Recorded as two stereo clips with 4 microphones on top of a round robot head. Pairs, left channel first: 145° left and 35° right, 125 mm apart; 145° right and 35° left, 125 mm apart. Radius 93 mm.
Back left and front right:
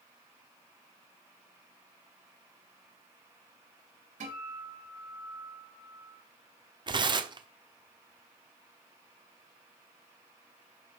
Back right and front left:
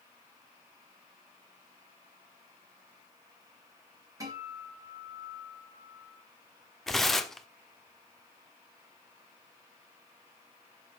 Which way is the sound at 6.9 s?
60° right.